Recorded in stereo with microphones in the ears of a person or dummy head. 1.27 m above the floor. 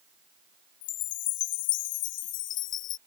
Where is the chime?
50° left (ahead or behind).